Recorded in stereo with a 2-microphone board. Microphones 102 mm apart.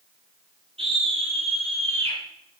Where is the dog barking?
No dog barking in this recording.